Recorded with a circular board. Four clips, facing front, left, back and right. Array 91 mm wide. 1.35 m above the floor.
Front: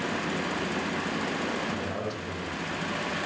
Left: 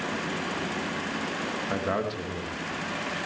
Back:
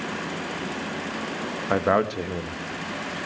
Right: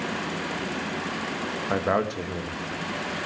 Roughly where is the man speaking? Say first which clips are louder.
Right 5 dB, back 10 dB; behind.